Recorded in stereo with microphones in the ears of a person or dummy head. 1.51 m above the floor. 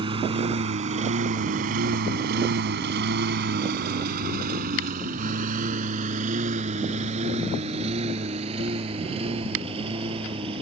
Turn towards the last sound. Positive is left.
turn(degrees=-30)  # may be behind; listen again after turning